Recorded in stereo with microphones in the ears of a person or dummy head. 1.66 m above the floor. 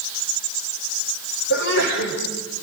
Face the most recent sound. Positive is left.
turn(degrees=60)  # may be behind; listen again after turning